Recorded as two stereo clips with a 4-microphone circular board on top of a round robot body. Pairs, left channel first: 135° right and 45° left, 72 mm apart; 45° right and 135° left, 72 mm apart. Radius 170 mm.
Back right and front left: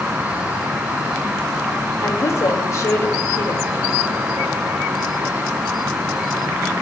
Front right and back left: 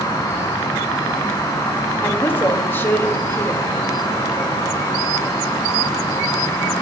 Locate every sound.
0.0 s an insect: 25° right, 4 m
2.0 s a woman speaking: 100° right, 2.5 m